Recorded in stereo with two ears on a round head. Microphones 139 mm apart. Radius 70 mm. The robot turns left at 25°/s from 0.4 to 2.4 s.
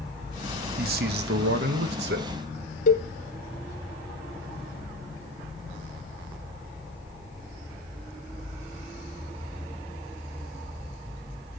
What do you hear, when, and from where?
0.8 s a man speaking: 65° right, 1.2 m; by 2.3 s 100° right, 1.2 m
2.9 s a cowbell: 50° left (ahead or behind), 1.0 m